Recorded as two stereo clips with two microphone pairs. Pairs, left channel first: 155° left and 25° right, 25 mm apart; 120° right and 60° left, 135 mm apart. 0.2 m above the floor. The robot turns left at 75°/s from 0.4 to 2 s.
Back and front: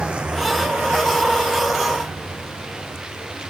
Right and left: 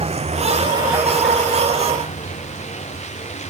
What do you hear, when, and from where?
0.0 s a vehicle: 15° left; by 3.5 s 85° right